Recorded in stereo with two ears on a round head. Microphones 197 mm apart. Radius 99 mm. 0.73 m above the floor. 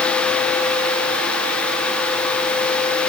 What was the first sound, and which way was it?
Only background noise.